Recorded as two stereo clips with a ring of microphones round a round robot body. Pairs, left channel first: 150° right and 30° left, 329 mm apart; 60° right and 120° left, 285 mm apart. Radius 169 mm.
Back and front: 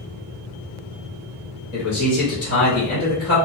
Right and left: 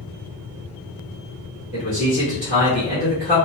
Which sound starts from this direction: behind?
A man speaking, at 1.7 s.